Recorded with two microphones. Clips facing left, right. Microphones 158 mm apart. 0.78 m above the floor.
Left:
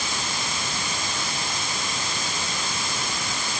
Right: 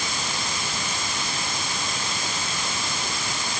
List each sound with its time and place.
Only background noise.